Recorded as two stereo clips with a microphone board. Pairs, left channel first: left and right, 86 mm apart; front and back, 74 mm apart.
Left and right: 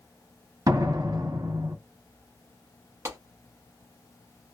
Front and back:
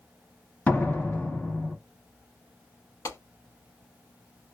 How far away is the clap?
About 1.7 m.